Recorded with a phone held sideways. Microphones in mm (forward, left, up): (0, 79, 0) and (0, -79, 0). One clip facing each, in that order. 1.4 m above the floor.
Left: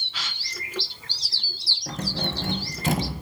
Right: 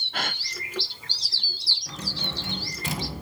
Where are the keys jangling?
55° left (ahead or behind), 5.5 m.